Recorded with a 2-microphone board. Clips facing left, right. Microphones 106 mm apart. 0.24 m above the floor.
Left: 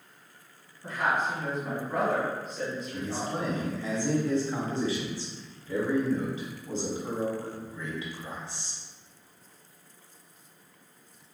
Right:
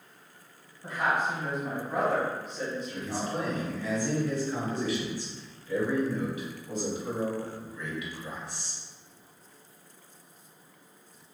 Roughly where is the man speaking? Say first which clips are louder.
Even; left.